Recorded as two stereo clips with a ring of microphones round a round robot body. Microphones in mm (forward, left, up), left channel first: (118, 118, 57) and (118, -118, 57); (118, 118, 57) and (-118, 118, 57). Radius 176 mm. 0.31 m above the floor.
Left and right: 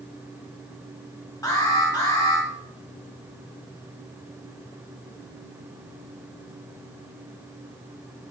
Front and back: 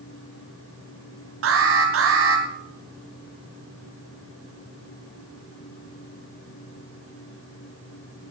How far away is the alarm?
About 3 m.